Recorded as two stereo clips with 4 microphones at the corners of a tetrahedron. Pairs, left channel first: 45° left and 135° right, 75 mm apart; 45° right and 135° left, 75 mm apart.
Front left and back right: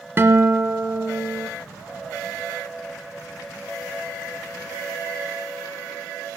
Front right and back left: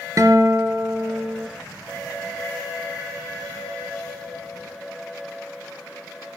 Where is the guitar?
170° left, 1.1 m.